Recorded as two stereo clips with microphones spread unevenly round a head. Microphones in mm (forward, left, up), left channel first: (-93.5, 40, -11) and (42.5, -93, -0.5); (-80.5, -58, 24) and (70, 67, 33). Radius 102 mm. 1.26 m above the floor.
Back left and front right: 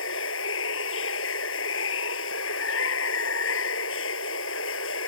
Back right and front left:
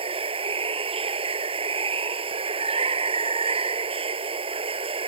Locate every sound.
0.0 s running water: 100° left